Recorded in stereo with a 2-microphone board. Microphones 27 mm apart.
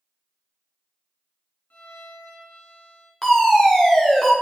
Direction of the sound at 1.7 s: 90° left.